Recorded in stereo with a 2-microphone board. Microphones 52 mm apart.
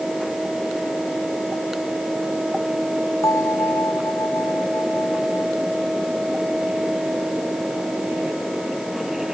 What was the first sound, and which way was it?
A bell, 85° left.